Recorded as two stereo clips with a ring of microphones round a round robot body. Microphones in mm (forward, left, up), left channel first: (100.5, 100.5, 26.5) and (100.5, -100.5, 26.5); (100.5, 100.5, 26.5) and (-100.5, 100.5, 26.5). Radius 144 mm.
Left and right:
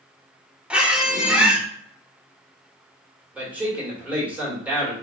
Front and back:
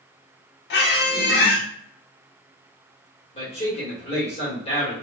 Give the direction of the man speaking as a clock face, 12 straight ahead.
1 o'clock.